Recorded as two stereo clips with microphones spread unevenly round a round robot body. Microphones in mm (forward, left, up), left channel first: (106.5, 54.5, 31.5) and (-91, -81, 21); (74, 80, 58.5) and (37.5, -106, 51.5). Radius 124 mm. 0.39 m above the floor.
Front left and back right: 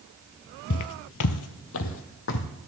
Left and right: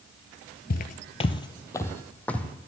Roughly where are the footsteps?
Ahead left.